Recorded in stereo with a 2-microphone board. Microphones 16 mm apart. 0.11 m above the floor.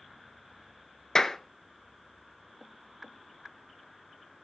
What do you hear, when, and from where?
1.1 s a clap: 35° left (ahead or behind), 1.0 m